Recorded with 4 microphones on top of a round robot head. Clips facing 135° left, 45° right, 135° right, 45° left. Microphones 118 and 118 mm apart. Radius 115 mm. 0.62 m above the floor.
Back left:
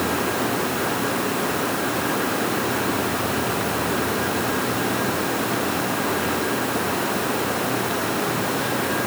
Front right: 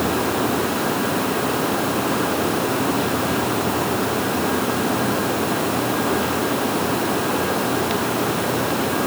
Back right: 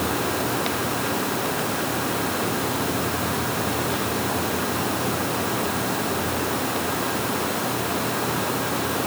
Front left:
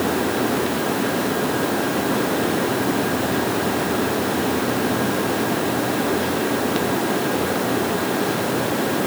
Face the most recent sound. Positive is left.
No sound to turn to.